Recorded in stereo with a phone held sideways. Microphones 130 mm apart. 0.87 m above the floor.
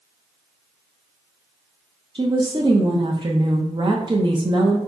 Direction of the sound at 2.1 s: 35° right (ahead or behind).